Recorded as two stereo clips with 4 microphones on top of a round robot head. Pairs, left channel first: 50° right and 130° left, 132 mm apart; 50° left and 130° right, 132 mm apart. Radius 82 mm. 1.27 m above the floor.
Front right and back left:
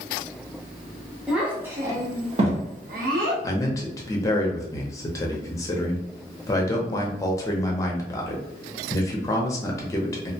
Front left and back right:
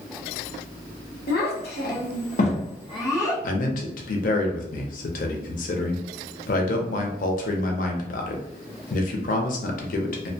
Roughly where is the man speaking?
Ahead.